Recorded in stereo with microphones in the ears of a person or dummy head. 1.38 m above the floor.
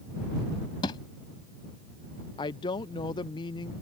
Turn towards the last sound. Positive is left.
turn(degrees=20)  # may be behind; listen again after turning